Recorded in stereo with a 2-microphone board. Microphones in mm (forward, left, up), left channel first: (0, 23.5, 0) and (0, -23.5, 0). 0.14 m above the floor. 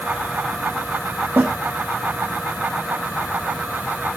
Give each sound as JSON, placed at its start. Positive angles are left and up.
{"t": 1.4, "sound": "a snare drum", "side_deg": -50, "distance_m": 3.0}